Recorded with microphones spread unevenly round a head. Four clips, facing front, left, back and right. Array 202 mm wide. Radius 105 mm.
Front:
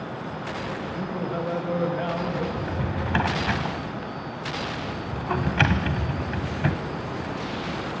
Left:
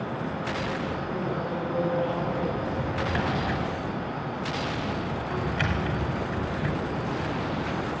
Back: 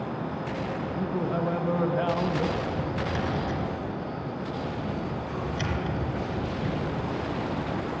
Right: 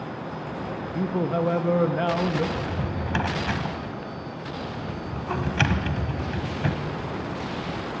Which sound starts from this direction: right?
A man speaking, at 0.9 s.